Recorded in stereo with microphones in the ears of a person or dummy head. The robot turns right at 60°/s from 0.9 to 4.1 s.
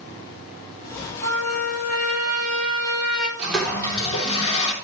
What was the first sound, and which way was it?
A trumpet, 120° right.